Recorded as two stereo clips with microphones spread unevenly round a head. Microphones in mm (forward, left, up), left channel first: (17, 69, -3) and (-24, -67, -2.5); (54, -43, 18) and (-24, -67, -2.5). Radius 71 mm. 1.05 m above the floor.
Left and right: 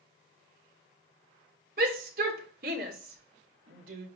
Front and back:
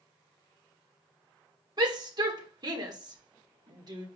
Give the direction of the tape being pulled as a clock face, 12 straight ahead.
I don't hear tape being pulled.